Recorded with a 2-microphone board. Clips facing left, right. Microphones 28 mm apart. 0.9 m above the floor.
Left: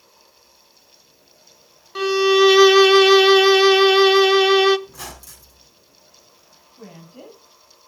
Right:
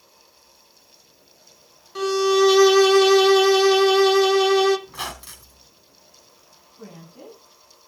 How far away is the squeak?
About 3.5 m.